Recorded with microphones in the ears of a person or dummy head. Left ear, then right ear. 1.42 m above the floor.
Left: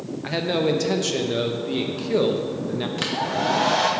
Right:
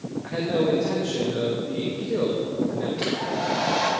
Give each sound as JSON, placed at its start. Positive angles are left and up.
{"t": 0.2, "sound": "a man speaking", "side_deg": 75, "distance_m": 0.8}
{"t": 3.0, "sound": "a hair dryer", "side_deg": 40, "distance_m": 1.2}